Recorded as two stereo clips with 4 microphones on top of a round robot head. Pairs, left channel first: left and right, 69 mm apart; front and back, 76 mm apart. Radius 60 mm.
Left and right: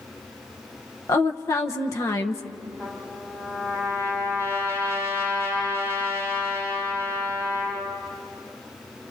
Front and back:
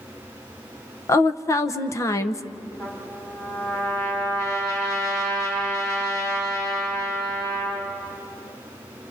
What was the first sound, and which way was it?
A woman speaking, 45° left.